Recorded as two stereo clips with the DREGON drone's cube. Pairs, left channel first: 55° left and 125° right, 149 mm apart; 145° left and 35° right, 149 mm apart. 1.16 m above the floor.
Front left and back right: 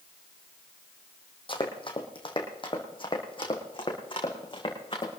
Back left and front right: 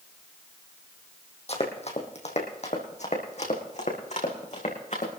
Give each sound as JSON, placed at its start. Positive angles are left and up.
{"t": 1.5, "sound": "running footsteps", "azimuth_deg": 105, "distance_m": 2.5}